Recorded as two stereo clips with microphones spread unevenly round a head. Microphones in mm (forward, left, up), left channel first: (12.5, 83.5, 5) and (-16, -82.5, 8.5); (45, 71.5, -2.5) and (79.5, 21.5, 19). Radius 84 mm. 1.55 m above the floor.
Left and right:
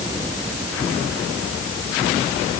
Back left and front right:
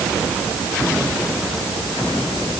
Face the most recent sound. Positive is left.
No sound to turn to.